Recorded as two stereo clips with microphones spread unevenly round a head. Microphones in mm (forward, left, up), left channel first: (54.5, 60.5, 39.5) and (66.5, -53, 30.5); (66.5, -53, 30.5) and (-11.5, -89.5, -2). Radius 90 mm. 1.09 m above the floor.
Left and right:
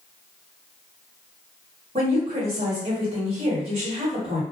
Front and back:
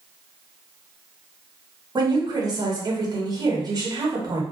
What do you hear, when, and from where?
1.9 s a woman speaking: 125° right, 1.4 m